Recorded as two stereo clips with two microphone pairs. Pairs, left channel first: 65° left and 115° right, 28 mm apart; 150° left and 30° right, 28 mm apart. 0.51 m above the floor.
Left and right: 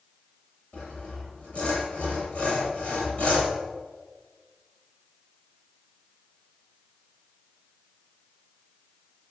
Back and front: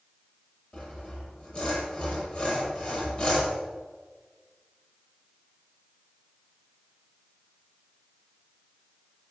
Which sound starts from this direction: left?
Sawing, at 0.7 s.